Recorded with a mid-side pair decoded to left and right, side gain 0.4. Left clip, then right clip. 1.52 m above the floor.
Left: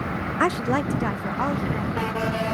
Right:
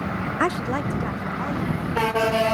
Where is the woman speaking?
Straight ahead; by 2.5 s 60° left.